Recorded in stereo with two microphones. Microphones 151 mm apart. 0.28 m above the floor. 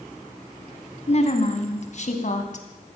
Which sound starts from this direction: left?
A woman speaking, at 1.1 s.